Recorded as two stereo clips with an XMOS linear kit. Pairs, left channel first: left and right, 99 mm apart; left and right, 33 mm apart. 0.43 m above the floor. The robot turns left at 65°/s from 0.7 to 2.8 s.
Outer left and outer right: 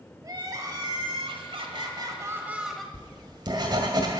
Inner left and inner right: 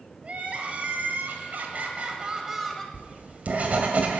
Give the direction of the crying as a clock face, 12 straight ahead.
2 o'clock.